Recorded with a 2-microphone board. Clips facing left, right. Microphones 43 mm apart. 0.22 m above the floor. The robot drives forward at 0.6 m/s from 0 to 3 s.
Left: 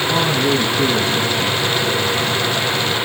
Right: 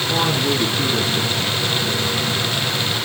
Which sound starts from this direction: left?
A woman speaking, at 0.1 s.